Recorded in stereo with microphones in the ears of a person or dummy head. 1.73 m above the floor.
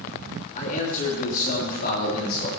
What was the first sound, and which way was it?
A man speaking, 40° left (ahead or behind).